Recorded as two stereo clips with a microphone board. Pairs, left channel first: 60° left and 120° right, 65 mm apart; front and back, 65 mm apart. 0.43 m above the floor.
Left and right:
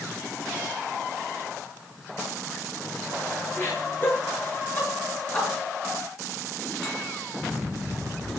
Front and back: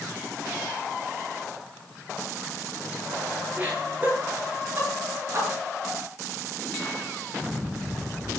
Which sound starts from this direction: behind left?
Laughter, at 3.6 s.